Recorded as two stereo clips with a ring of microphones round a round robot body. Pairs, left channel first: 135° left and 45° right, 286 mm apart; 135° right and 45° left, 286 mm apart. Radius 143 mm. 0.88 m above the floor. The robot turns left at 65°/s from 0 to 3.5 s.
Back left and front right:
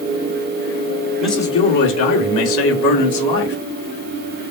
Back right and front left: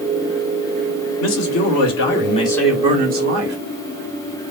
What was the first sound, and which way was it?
A man speaking, 130° right.